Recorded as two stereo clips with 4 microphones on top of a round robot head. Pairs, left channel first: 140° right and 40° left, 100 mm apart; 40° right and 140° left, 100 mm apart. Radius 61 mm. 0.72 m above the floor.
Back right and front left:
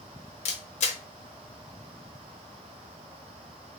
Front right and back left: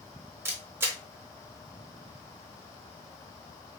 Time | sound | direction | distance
0.5 | a camera shutter | 155° right | 1.0 m